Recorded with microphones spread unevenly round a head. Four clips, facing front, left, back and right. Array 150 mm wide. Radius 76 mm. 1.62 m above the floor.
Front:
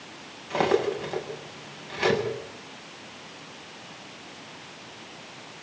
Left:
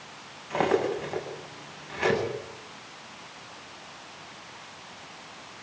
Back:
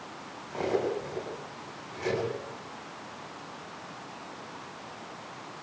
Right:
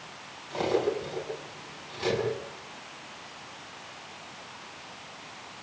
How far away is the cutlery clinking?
About 8.5 m.